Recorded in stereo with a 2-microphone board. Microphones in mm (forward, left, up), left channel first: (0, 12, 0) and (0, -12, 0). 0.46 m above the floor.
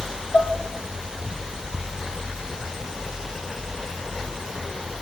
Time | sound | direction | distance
0.3 | dishes clattering | 65° left (ahead or behind) | 2 m